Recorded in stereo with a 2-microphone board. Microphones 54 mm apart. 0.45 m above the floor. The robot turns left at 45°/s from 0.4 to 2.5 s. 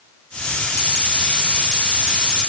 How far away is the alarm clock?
No alarm clock in this recording.